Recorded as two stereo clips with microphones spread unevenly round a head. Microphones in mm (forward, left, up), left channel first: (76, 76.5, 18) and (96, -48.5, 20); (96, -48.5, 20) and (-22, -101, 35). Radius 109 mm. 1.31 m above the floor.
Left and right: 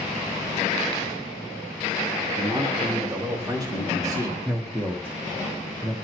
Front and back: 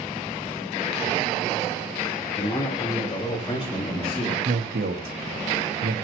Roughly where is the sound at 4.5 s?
Behind.